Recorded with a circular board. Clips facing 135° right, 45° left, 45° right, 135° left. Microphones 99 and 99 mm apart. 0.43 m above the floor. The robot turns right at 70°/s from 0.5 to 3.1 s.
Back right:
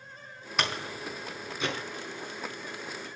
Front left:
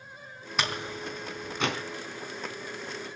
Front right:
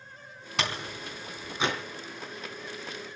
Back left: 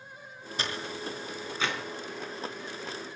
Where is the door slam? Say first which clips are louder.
Even, front right 2 dB; 45° right, 3.5 m; by 1.8 s 40° left, 3.5 m.